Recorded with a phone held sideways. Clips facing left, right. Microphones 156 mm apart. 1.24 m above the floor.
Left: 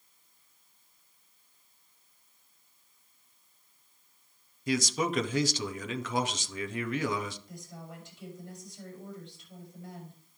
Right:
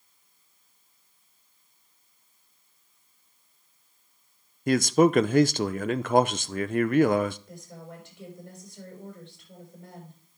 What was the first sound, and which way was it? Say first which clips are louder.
A man speaking: right 10 dB; 55° right (ahead or behind).